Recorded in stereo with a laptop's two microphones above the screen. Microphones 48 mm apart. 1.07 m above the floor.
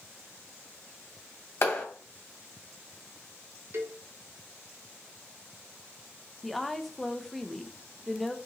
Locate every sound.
1.6 s a clap: 60° left (ahead or behind), 2.5 m
3.7 s a cowbell: 60° right (ahead or behind), 0.7 m
6.4 s a woman speaking: 5° left (ahead or behind), 0.7 m